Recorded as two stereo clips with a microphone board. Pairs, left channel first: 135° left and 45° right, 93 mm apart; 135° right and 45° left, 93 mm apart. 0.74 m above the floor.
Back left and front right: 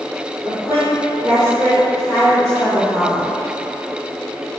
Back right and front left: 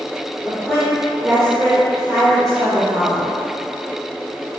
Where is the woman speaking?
50° right, 2.0 m; by 3.3 s 20° left, 1.3 m.